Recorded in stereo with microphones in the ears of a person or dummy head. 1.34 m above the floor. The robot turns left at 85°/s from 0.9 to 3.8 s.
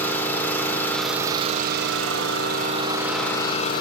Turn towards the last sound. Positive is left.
turn(degrees=125)